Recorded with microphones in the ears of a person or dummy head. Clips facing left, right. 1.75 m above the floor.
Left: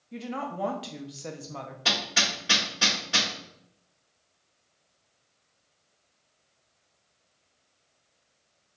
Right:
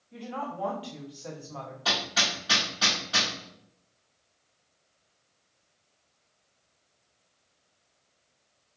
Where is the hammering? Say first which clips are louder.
Even; 35° left (ahead or behind), 1.8 m.